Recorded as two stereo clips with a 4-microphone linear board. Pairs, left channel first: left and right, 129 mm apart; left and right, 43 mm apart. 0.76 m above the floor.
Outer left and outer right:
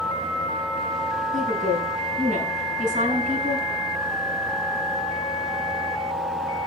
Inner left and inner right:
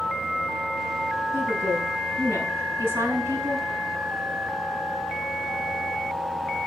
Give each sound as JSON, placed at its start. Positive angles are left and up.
{"t": 1.3, "sound": "a woman speaking", "side_deg": -80, "distance_m": 9.0}